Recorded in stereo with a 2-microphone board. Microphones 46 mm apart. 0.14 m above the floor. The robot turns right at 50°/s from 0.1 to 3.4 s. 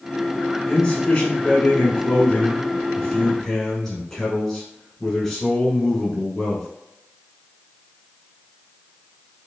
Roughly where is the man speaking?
Centre.